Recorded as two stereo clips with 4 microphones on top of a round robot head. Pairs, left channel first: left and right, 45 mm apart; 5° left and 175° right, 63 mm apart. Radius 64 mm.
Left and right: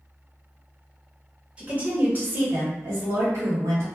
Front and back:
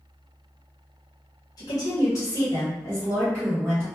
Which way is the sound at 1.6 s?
25° right.